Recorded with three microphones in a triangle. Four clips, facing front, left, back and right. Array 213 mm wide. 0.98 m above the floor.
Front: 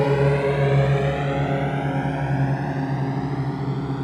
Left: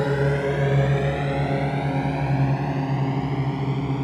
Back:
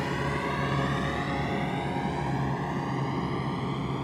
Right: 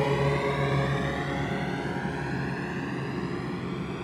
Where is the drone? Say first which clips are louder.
Left 3 dB, front 11 dB; 10° left; by 4.0 s 50° left.